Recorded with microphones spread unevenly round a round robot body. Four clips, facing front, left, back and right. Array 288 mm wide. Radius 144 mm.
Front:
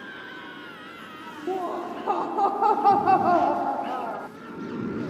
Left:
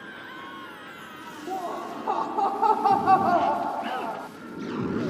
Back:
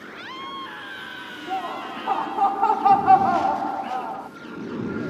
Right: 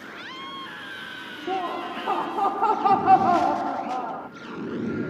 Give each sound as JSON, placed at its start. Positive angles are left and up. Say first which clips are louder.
{"t": 1.5, "sound": "laughter", "louder": "right 3 dB, front 1 dB", "azimuth_deg": -35, "distance_m": 1.0}